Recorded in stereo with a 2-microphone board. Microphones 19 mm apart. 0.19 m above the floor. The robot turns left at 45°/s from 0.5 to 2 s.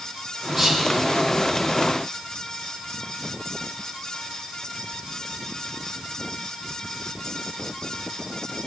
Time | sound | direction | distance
0.6 | whispering | centre (ahead or behind) | 4 m